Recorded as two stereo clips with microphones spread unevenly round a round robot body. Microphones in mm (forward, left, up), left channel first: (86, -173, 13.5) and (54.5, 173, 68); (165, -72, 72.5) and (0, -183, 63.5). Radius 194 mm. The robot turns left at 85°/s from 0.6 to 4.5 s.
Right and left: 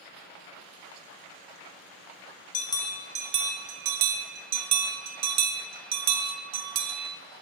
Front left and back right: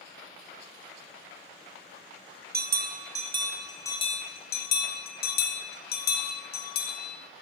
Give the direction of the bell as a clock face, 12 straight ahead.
5 o'clock.